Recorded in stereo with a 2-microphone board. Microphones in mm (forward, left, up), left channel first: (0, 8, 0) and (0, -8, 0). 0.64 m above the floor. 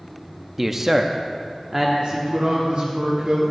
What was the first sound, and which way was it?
A man speaking, 15° right (ahead or behind).